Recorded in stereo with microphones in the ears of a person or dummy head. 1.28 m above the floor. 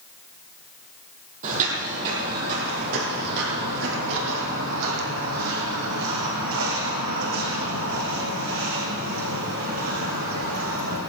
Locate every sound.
1.4 s footsteps: 35° right (ahead or behind), 2.5 m; by 11.0 s 75° right (ahead or behind), 6 m